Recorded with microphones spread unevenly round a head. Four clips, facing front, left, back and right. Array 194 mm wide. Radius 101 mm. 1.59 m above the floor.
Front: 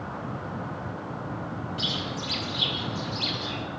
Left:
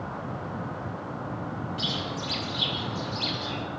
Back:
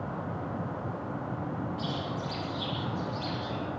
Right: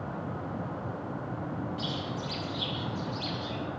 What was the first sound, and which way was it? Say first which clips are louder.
A bird: left 2 dB, front 1 dB; 25° left.